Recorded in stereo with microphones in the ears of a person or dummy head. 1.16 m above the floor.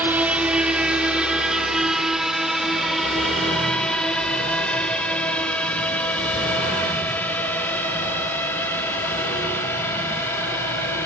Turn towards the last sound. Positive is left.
turn(degrees=10)  # may be behind; listen again after turning